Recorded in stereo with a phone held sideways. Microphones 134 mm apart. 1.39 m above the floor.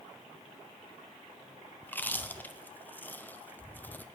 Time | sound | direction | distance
1.8 | chewing | 15° left (ahead or behind) | 0.5 m